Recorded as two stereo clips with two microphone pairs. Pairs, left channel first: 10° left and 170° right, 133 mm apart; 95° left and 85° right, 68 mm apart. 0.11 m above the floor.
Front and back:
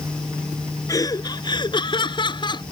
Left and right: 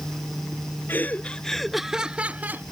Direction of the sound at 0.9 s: 60° left.